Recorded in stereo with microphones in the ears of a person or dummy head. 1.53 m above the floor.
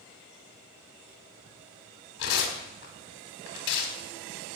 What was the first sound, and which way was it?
Tearing paper, 65° left (ahead or behind).